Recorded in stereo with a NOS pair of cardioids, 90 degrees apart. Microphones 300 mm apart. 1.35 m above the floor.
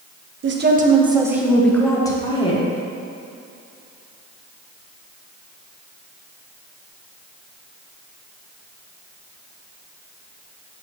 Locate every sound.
0.4 s a woman speaking: 40° right, 0.9 m; by 2.6 s 20° left, 1.8 m